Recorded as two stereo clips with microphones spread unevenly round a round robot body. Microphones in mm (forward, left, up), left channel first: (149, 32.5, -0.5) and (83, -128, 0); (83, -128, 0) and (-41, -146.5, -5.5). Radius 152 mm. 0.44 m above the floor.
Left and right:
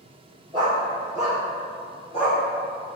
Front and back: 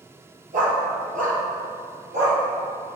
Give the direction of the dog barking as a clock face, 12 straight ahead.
6 o'clock.